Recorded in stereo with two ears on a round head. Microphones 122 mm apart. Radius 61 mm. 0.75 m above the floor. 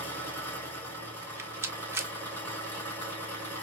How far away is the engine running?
About 3 m.